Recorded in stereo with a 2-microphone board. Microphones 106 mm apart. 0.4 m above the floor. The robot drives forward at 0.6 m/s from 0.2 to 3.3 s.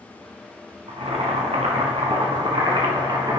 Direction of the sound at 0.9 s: 75° right (ahead or behind).